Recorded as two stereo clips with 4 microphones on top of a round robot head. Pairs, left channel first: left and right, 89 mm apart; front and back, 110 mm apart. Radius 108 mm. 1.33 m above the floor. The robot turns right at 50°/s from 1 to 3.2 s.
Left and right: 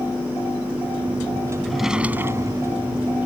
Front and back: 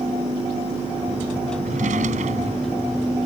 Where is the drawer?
175° left; by 2.8 s 130° right.